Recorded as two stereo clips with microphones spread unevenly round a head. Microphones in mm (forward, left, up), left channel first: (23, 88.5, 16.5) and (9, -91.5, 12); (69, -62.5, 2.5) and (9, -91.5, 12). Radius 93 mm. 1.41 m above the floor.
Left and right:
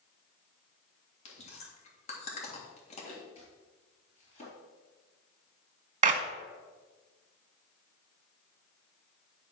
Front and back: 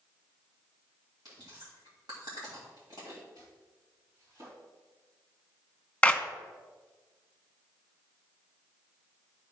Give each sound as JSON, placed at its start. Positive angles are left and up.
{"t": 1.2, "sound": "chewing", "azimuth_deg": 140, "distance_m": 2.0}
{"t": 3.4, "sound": "chopping", "azimuth_deg": 140, "distance_m": 4.5}
{"t": 6.0, "sound": "a clap", "azimuth_deg": -45, "distance_m": 1.0}